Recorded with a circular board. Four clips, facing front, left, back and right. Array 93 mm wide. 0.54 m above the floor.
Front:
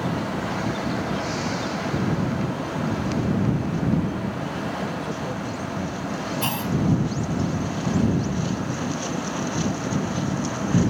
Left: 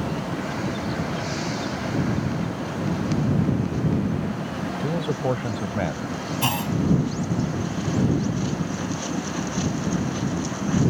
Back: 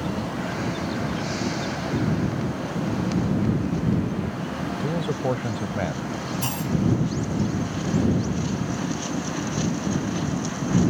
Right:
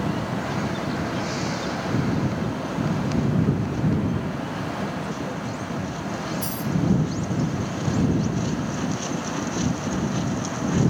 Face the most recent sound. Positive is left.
turn(degrees=70)